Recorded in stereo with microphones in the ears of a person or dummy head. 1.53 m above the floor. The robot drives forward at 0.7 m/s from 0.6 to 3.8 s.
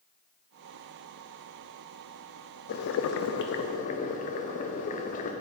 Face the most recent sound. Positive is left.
turn(degrees=45)  # may be behind; listen again after turning